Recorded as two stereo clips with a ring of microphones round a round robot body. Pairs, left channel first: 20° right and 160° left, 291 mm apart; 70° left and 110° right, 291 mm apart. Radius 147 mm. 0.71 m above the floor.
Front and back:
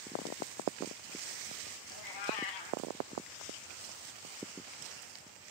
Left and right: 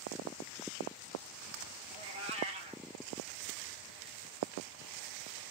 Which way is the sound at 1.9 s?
40° right.